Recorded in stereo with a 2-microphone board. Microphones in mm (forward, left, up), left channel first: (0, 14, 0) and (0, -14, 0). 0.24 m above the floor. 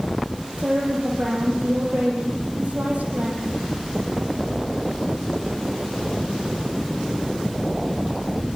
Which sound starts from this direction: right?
A woman speaking, at 0.6 s.